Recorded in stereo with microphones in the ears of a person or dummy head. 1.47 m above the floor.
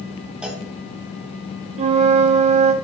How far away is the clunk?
About 1.2 m.